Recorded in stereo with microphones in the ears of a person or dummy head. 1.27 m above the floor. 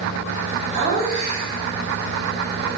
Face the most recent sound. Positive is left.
turn(degrees=-25)  # may be behind; listen again after turning